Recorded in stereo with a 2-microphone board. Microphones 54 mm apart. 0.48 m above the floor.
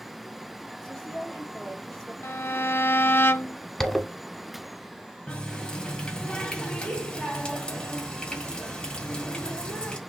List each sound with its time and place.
0.8 s a woman speaking: 15° left (ahead or behind), 2.5 m
2.2 s a violin: 50° left (ahead or behind), 0.6 m
3.8 s a zipper: 10° left (ahead or behind), 0.9 m
5.3 s a running tap: 15° left (ahead or behind), 1.8 m